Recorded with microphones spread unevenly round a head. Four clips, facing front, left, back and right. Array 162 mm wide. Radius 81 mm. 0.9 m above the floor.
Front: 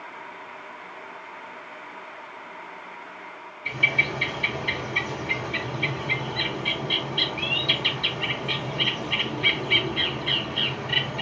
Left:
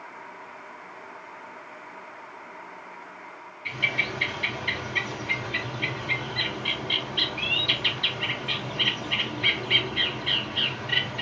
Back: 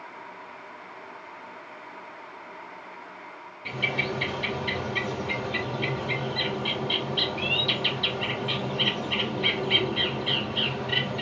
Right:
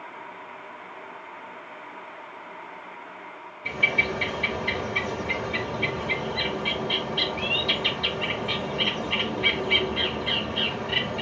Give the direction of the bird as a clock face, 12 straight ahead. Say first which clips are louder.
Right 4 dB, front 2 dB; 4 o'clock.